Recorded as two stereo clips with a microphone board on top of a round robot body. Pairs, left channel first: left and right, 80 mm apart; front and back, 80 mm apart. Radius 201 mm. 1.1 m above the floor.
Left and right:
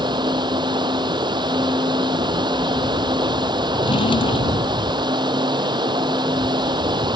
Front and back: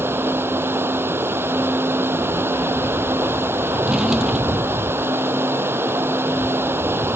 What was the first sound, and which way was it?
Running water, 120° right.